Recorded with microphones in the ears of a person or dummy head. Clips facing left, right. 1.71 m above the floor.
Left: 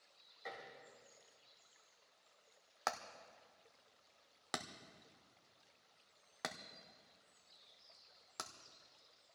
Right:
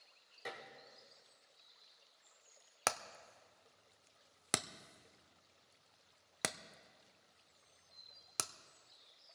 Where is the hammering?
45° right (ahead or behind), 0.6 m.